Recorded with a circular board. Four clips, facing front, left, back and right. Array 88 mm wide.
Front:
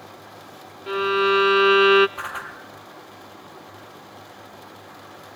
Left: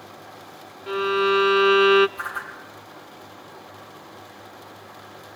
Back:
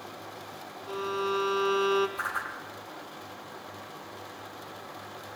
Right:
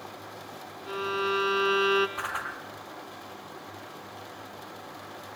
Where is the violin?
30° left, 0.7 m.